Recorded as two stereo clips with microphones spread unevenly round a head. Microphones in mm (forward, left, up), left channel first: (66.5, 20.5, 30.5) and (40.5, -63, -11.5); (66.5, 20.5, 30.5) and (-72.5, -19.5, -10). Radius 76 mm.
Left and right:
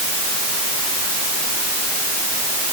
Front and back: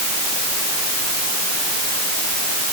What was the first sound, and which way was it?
Only background noise.